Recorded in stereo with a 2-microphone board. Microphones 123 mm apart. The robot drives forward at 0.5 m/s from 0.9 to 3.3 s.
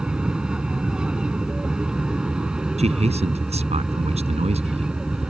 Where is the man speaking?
65° right (ahead or behind); by 5.3 s 60° right (ahead or behind).